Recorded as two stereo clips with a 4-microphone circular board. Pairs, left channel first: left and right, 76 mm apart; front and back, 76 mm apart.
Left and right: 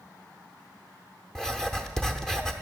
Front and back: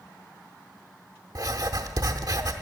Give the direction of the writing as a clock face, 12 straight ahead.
6 o'clock.